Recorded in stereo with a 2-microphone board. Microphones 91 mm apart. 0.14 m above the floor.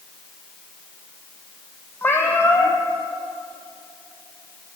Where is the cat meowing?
25° left (ahead or behind), 1.5 m.